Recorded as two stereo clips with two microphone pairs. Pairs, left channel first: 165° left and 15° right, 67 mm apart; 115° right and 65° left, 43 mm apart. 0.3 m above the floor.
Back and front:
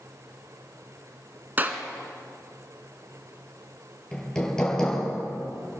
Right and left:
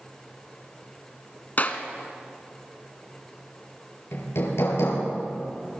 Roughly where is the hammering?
Behind right.